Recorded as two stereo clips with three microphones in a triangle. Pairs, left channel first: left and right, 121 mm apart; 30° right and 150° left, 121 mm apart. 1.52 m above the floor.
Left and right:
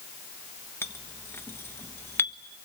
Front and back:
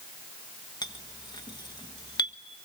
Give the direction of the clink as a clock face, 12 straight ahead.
11 o'clock.